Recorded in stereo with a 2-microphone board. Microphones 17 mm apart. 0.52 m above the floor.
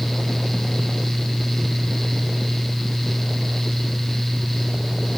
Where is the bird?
No bird in this recording.